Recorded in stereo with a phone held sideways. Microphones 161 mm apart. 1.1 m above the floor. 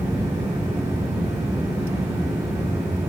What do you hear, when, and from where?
0.0 s a fan: 40° right (ahead or behind), 2.5 m